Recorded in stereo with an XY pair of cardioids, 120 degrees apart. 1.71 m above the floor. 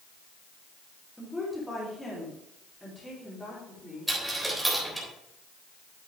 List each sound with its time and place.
1.2 s a woman speaking: 5° left, 3.5 m; by 4.1 s 15° left, 5 m
4.1 s a dropped coin: 5° right, 3.5 m